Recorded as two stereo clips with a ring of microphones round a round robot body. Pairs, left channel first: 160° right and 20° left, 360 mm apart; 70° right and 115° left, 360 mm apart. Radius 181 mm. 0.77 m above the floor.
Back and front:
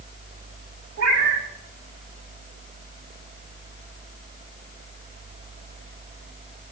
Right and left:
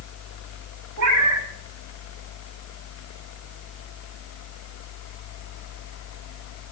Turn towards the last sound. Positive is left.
turn(degrees=70)